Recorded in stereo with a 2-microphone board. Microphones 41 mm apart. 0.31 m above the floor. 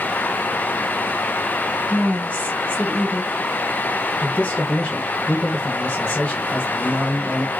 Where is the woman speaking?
30° left (ahead or behind), 3 m.